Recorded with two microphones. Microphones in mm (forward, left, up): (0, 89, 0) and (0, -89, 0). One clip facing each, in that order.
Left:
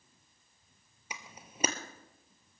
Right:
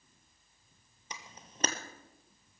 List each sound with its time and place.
1.1 s a camera shutter: 10° left (ahead or behind), 1.2 m